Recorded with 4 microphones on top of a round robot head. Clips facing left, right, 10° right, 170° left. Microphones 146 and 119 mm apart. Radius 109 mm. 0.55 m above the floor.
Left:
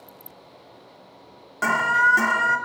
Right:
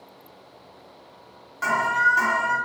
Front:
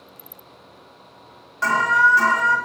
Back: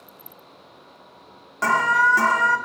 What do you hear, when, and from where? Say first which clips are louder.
1.6 s an alarm: left 1 dB, front 1 dB; 125° left, 1.2 m